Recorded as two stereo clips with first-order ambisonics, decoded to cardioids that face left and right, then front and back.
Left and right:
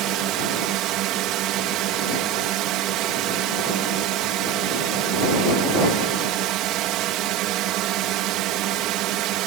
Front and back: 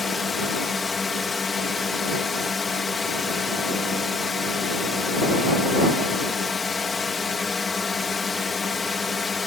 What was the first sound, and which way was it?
A drone, 70° right.